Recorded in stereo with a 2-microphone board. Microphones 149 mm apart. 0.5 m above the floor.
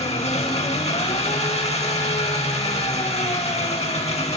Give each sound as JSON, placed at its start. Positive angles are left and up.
{"t": 0.0, "sound": "an engine running", "side_deg": 45, "distance_m": 0.9}